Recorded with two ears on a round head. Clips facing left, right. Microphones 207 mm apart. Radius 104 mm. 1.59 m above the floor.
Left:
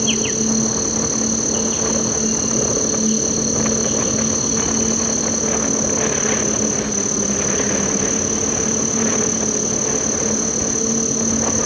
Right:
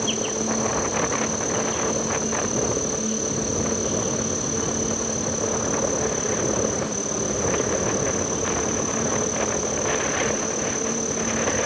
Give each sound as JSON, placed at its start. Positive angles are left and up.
{"t": 0.0, "sound": "an insect", "side_deg": 35}